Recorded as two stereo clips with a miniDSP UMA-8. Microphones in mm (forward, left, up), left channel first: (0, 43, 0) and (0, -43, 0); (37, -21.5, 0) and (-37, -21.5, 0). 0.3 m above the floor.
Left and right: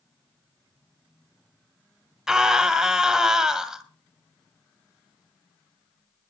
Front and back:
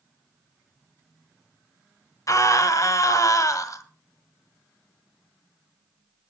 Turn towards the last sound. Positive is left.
turn(degrees=-10)